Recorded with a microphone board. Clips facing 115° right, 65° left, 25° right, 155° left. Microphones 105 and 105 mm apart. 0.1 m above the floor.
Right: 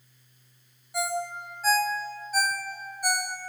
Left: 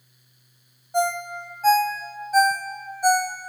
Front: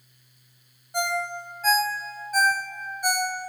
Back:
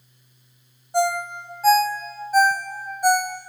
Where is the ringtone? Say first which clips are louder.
Left 6 dB, back 6 dB; 100° left, 1.2 m.